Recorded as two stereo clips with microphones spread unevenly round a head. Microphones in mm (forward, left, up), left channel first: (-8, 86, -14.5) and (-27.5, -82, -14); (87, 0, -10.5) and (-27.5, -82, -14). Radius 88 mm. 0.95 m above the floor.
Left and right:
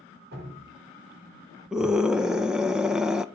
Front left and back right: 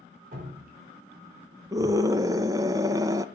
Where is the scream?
Straight behind, 0.6 m.